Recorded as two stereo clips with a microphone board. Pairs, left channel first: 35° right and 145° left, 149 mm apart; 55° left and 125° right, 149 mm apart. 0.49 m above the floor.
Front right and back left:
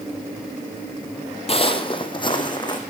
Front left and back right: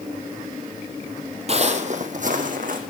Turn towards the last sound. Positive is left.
turn(degrees=-95)